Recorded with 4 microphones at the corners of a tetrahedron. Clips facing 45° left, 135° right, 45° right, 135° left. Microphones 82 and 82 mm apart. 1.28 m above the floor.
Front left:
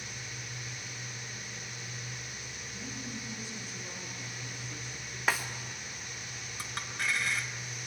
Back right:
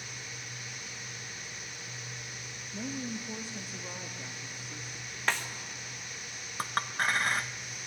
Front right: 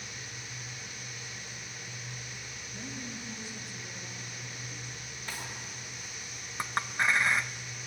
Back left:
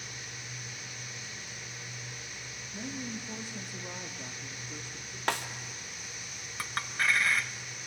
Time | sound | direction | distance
2.7 | a woman speaking | 155° right | 2 m
5.3 | a snare drum | 130° left | 1.1 m
6.6 | a clink | 110° right | 0.6 m